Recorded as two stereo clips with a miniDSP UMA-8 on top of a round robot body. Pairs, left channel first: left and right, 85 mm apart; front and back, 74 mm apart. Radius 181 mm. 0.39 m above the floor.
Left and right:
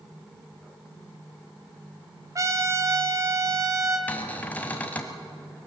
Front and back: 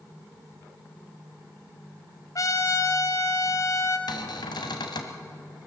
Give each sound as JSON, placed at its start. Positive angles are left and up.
{"t": 2.4, "sound": "a trumpet", "azimuth_deg": -40, "distance_m": 2.0}
{"t": 4.1, "sound": "a cupboard door", "azimuth_deg": 20, "distance_m": 1.6}